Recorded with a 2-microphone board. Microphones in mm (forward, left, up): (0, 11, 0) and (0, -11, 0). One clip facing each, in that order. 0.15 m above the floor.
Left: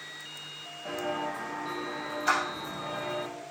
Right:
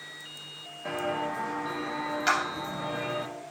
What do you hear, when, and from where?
0.8 s footsteps: 70° right (ahead or behind), 1.7 m; by 3.3 s 75° right (ahead or behind), 3 m
2.3 s a clap: 65° right (ahead or behind), 3 m